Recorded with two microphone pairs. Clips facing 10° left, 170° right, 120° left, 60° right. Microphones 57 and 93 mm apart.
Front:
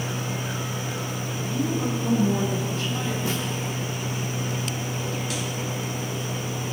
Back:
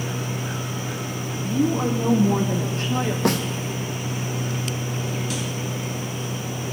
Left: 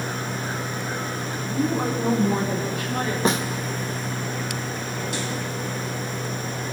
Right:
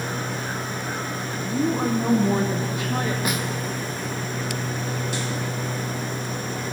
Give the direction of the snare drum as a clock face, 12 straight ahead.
6 o'clock.